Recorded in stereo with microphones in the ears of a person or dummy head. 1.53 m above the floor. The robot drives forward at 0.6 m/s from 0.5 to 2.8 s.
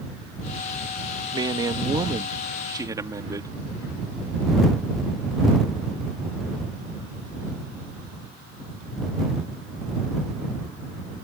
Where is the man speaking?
25° right (ahead or behind); by 3.5 s 15° right (ahead or behind).